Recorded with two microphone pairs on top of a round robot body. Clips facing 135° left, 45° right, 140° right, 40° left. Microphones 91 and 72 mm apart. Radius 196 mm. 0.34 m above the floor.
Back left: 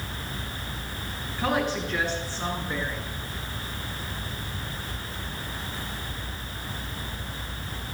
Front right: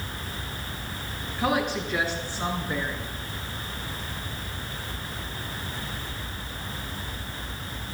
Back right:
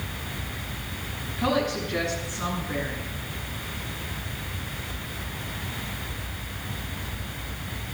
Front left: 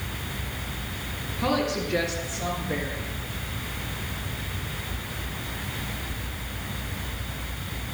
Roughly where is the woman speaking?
Behind right.